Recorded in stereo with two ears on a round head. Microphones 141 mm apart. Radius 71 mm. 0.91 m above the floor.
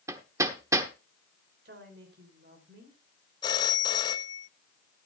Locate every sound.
0.1 s hammering: 20° right (ahead or behind), 1.0 m
1.6 s a woman speaking: 70° right (ahead or behind), 4 m
3.4 s a phone ringing: 25° left (ahead or behind), 0.7 m